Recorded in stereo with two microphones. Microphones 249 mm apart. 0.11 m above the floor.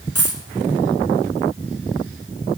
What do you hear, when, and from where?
0.1 s a dropped coin: 75° right (ahead or behind), 2.5 m